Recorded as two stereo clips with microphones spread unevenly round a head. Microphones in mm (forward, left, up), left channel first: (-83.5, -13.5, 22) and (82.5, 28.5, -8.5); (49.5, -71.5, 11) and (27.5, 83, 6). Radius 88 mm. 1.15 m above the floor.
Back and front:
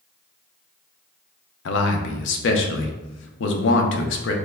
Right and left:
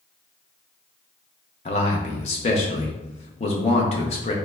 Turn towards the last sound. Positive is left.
turn(degrees=-140)